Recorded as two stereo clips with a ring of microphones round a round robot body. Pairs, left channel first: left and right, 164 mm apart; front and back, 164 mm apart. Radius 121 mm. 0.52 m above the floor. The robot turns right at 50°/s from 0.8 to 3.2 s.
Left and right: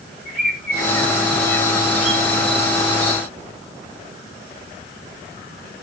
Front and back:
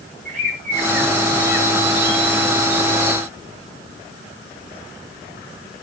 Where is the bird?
150° left, 7 m; by 2.2 s 140° right, 7 m.